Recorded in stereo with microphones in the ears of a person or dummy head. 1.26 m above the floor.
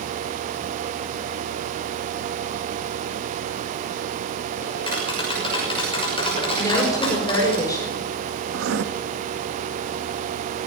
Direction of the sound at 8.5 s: 85° right.